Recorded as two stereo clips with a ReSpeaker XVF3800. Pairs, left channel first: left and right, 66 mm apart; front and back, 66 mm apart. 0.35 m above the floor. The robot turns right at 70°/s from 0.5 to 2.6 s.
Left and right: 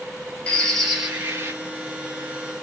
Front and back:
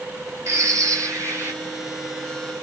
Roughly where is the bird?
Behind.